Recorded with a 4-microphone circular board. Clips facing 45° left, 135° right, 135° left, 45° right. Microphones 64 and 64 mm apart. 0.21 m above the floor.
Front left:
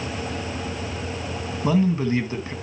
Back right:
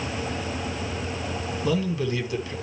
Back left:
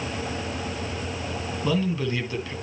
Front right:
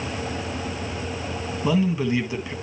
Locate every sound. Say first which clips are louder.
1.6 s a man speaking: front left 5 dB, front right 4 dB; 20° left, 1.4 m